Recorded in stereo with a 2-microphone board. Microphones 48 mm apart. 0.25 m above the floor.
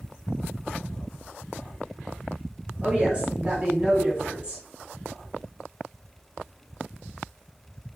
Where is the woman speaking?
20° right (ahead or behind), 1.1 m.